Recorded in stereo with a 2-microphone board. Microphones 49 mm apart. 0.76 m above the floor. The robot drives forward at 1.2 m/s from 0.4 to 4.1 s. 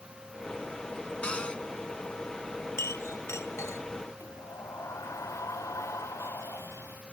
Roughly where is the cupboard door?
Left.